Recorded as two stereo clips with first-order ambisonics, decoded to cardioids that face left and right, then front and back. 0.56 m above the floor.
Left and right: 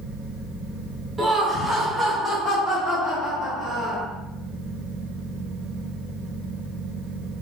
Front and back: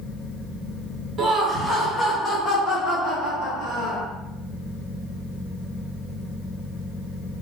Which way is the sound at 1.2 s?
155° right.